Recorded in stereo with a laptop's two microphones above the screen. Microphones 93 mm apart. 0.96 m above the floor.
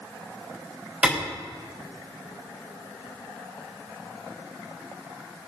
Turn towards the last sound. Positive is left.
turn(degrees=-15)  # may be behind; listen again after turning